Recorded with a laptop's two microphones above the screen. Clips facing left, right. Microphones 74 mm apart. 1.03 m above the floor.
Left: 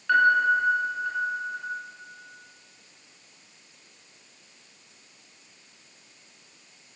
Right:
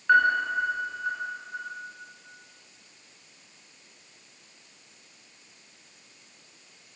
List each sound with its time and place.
0.1 s a piano: 20° right (ahead or behind), 7.5 m